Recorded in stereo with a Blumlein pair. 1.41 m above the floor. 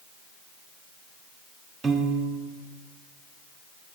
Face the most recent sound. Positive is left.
turn(degrees=-15)